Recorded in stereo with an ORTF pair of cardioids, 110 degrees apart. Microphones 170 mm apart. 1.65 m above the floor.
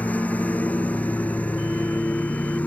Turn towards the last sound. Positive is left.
turn(degrees=10)